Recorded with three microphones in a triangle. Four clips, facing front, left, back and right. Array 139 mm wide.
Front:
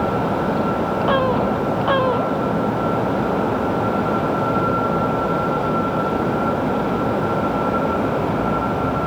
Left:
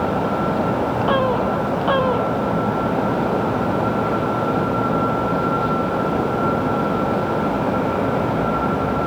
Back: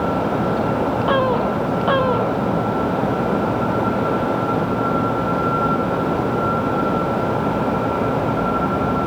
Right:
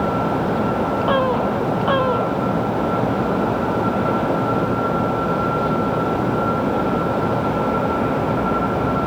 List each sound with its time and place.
Only background noise.